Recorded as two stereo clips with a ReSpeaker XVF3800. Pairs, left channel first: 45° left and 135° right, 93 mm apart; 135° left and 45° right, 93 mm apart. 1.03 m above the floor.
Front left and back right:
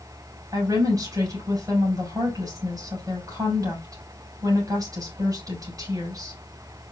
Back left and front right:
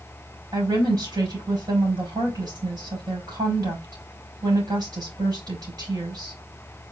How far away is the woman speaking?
About 4.5 m.